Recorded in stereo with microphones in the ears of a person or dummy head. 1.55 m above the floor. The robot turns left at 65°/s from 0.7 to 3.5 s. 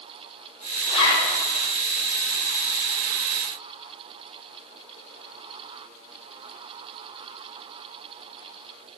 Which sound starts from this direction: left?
A zipper, at 0.9 s.